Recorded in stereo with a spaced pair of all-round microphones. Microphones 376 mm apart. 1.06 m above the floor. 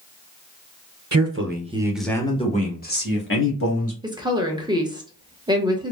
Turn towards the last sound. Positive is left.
turn(degrees=-10)  # may be behind; listen again after turning